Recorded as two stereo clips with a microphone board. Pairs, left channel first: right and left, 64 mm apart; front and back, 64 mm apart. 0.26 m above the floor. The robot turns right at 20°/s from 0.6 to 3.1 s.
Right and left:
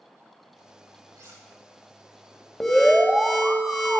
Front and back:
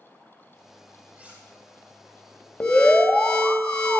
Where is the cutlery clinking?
110° left, 5.5 m; by 1.4 s 120° left, 5.5 m.